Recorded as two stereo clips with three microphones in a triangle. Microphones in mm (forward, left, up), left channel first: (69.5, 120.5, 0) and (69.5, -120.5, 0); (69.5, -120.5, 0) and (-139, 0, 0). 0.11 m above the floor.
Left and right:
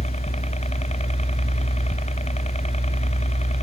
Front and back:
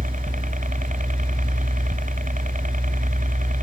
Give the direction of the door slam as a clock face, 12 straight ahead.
No door slam in this recording.